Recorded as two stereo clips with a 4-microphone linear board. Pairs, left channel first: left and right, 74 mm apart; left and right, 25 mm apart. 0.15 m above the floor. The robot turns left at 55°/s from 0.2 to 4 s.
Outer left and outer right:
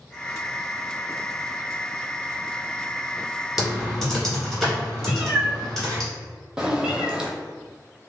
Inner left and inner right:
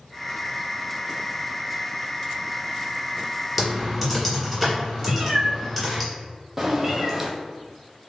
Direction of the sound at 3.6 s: 5° right (ahead or behind).